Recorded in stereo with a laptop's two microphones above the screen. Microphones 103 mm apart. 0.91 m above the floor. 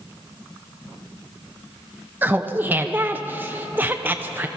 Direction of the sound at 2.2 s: 20° right (ahead or behind).